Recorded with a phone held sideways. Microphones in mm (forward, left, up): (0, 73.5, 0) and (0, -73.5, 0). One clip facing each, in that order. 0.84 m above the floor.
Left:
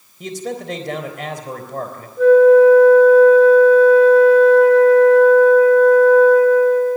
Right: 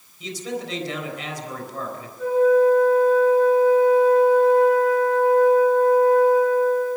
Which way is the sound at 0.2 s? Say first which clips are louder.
Left 3 dB; 50° left (ahead or behind).